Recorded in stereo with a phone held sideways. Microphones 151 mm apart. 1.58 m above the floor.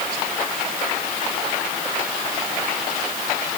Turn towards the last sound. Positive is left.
No sound to turn to.